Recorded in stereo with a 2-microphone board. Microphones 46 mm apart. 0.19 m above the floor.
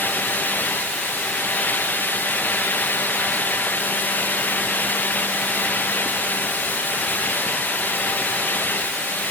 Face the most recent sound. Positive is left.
No sound to turn to.